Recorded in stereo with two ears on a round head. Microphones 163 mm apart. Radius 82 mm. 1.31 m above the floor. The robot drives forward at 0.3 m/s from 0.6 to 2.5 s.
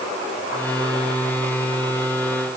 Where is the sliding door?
I don't hear a sliding door.